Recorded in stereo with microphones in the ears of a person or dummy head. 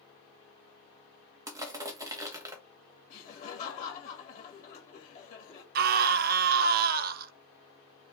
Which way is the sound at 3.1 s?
45° left (ahead or behind).